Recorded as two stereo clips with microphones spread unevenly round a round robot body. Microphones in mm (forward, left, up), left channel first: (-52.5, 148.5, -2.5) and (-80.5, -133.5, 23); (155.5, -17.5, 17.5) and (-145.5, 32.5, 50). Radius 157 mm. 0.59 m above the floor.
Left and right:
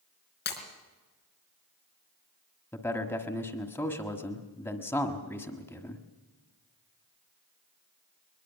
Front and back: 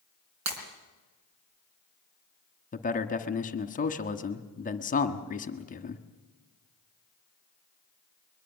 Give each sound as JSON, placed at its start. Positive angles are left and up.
{"t": 0.5, "sound": "breaking glass", "azimuth_deg": 135, "distance_m": 4.0}
{"t": 2.7, "sound": "a man speaking", "azimuth_deg": 15, "distance_m": 1.4}